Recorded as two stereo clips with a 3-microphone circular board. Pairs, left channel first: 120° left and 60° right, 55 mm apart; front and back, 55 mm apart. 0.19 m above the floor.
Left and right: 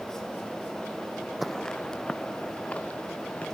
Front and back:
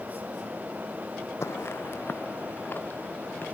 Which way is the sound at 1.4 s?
30° left.